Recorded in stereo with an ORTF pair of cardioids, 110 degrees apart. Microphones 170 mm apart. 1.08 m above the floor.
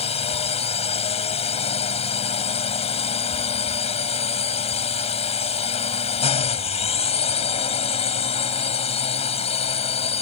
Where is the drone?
35° left.